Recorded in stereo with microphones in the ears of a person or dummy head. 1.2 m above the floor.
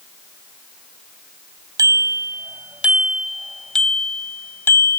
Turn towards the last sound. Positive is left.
turn(degrees=20)  # may be behind; listen again after turning